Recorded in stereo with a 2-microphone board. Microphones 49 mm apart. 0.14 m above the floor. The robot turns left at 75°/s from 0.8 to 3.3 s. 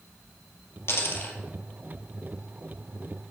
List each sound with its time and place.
0.9 s a dropped coin: 75° left, 1.8 m; by 1.4 s 40° left, 1.8 m